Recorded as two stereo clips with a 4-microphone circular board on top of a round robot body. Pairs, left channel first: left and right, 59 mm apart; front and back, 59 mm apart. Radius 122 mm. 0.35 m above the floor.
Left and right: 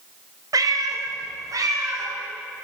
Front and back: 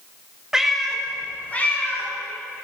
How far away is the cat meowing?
About 1.3 m.